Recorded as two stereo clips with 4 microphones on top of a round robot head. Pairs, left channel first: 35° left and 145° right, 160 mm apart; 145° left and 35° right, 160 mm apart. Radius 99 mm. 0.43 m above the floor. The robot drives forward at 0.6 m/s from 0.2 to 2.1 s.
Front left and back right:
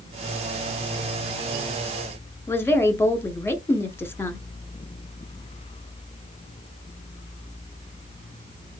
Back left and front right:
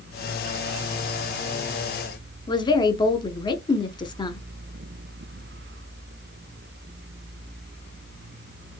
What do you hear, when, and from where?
2.5 s a woman speaking: 105° left, 0.9 m